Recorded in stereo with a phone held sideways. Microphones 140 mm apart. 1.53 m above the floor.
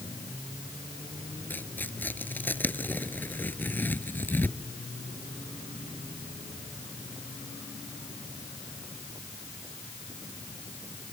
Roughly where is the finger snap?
No finger snap in this recording.